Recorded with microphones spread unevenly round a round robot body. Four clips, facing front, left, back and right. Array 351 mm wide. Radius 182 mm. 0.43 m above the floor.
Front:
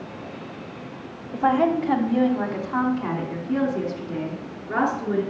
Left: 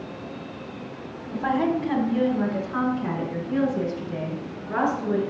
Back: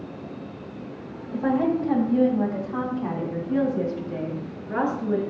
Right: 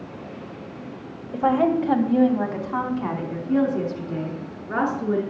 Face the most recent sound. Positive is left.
turn(degrees=-60)